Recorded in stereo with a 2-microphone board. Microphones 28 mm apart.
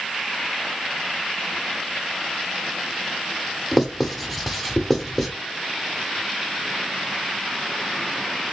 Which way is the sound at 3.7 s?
5° left (ahead or behind).